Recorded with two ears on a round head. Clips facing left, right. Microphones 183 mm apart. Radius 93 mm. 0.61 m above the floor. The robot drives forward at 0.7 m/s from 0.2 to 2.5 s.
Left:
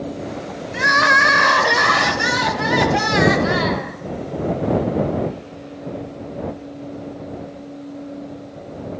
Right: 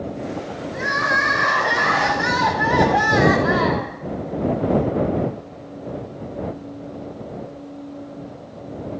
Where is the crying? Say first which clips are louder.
Left 6 dB; 80° left, 0.8 m; by 3.9 s 35° left (ahead or behind), 1.3 m.